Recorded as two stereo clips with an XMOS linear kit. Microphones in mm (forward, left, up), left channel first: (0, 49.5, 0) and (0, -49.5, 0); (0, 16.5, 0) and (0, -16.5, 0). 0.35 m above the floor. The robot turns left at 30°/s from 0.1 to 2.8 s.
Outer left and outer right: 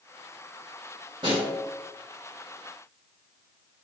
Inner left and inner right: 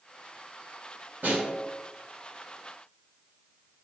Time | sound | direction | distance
1.2 | a snare drum | 55° right (ahead or behind) | 1.9 m